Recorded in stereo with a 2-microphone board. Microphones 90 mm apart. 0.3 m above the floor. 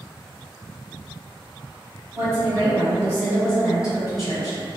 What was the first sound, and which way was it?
A woman speaking, 35° right (ahead or behind).